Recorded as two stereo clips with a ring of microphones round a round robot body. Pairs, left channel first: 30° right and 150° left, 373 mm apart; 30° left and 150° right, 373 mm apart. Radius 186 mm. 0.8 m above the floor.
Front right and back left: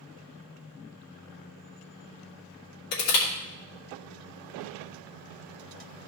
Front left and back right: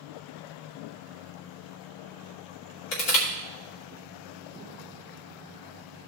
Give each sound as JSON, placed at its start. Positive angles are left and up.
{"t": 2.9, "sound": "crushing", "azimuth_deg": 20, "distance_m": 2.5}